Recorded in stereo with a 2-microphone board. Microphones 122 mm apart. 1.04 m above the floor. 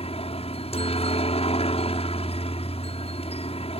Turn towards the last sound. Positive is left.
turn(degrees=55)  # may be behind; listen again after turning